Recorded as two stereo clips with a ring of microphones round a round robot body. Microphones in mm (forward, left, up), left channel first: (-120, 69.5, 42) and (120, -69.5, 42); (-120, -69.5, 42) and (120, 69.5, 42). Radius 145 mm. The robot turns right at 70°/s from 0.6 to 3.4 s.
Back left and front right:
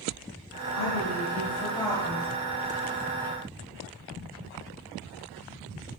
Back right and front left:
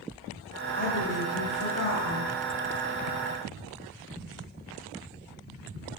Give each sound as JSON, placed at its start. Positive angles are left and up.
{"t": 0.7, "sound": "a woman speaking", "azimuth_deg": 145, "distance_m": 2.5}